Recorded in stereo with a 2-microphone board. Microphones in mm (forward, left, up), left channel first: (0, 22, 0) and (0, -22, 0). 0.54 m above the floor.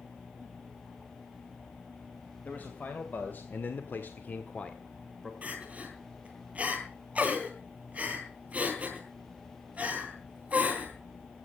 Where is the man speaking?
40° left (ahead or behind), 3 m; by 5.3 s 10° left (ahead or behind), 2 m.